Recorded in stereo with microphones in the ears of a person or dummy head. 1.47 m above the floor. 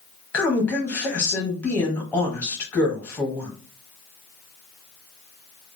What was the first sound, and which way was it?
A woman speaking, 5° left (ahead or behind).